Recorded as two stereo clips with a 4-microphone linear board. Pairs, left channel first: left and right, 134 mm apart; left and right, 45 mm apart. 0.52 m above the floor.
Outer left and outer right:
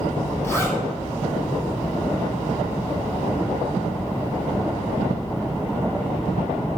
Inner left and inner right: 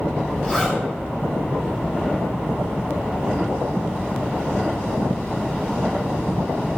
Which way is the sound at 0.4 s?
20° left (ahead or behind).